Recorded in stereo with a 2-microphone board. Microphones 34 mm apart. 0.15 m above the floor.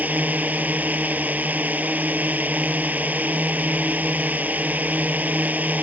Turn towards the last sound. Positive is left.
turn(degrees=-60)  # may be behind; listen again after turning